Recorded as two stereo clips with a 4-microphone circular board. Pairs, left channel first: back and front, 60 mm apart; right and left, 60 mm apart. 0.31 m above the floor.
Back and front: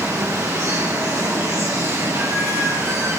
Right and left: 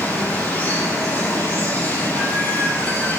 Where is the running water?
30° right, 8 m.